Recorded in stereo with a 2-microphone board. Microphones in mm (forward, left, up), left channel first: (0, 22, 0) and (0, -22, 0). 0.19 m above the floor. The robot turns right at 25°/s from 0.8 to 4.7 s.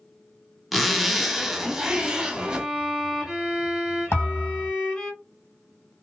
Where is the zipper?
Centre (ahead or behind), 0.7 m; by 2.7 s 20° right (ahead or behind), 0.7 m.